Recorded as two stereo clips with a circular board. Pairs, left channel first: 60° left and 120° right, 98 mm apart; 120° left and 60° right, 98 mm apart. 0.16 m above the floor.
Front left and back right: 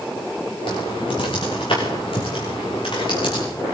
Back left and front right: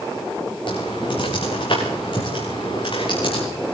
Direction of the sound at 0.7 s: 90° left.